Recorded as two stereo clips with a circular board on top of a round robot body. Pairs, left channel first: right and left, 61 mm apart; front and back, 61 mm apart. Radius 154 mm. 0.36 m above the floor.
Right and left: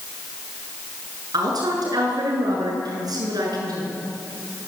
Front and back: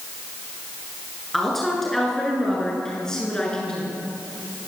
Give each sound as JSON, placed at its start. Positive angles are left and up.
{"t": 1.3, "sound": "a woman speaking", "azimuth_deg": 90, "distance_m": 8.0}